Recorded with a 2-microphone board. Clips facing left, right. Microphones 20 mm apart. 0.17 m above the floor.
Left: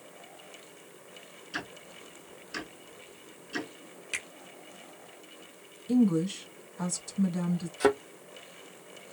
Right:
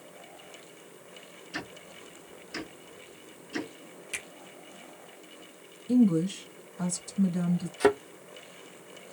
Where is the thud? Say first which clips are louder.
Right 1 dB; centre (ahead or behind), 1.1 m.